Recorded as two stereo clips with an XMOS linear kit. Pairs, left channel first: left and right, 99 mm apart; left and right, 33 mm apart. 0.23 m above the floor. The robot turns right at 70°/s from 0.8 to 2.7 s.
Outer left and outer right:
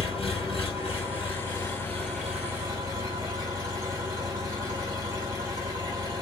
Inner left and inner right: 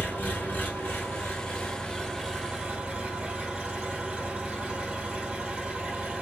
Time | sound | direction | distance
0.0 | an engine running | 85° left | 1.9 m